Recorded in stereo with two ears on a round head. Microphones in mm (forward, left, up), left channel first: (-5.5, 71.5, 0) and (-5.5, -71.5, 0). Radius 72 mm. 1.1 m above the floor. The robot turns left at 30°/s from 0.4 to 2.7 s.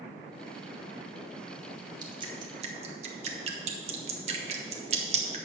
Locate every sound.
2.0 s dripping: 30° right (ahead or behind), 1.3 m; by 5.4 s 45° right (ahead or behind), 1.3 m